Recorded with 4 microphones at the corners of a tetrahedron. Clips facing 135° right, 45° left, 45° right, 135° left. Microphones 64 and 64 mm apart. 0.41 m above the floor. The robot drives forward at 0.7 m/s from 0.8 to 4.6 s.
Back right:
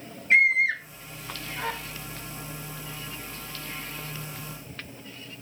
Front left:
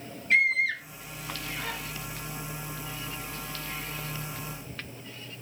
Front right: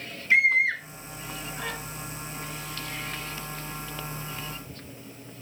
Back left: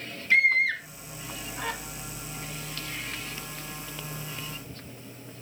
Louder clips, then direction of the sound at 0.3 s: Back right 4 dB, front right 1 dB; 100° right.